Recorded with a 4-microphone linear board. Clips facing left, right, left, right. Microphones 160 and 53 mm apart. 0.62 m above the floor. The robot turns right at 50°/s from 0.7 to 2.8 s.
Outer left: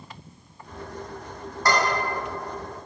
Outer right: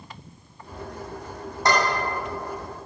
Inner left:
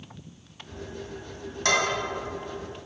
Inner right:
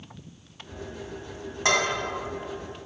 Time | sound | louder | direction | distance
1.6 | dishes clattering | outer right 1 dB, even | 20° right (ahead or behind) | 2.5 m